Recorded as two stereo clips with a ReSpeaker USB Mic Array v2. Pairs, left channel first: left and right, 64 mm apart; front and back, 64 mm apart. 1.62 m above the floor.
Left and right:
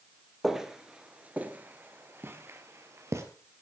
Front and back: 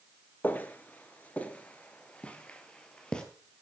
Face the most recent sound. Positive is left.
turn(degrees=-75)